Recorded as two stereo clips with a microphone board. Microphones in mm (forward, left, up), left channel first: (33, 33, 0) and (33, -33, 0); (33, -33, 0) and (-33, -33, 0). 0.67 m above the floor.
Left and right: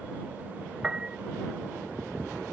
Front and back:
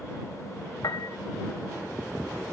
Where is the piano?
10° right.